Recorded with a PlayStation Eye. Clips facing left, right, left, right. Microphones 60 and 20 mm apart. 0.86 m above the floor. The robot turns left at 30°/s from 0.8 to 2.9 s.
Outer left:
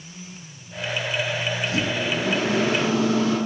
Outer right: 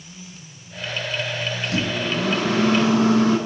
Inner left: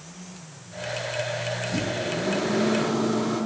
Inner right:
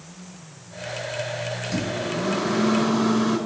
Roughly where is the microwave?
Right.